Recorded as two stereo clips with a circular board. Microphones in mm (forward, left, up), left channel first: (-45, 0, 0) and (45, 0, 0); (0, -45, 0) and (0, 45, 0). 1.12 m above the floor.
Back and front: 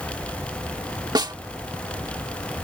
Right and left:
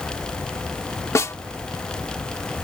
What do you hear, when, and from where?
1.1 s a snare drum: 35° right